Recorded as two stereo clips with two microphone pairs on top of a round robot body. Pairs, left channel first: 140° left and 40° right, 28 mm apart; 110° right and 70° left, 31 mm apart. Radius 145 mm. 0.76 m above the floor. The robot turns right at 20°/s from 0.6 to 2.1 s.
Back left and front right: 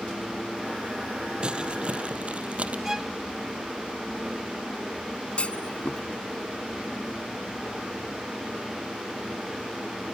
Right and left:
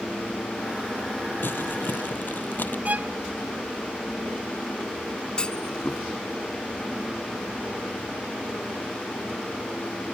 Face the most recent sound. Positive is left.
turn(degrees=-175)